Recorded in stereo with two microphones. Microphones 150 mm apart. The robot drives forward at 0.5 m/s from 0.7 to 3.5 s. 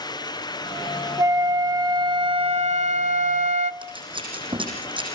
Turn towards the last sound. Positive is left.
turn(degrees=-35)  # may be behind; listen again after turning